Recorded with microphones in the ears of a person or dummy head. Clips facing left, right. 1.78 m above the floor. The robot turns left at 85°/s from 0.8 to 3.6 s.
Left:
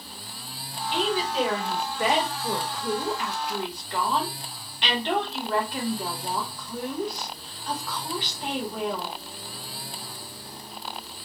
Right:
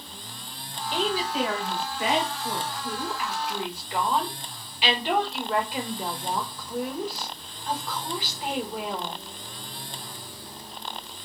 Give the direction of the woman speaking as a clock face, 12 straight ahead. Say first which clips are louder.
Left 1 dB; 5 o'clock.